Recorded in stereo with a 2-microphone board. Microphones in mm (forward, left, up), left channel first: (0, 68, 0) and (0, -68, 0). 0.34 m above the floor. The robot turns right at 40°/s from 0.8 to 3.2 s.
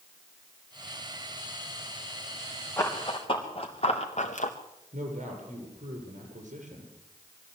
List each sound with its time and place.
2.8 s running footsteps: 20° left (ahead or behind), 4.5 m; by 4.5 s 70° left (ahead or behind), 2.5 m
4.9 s a man speaking: 65° right (ahead or behind), 7.5 m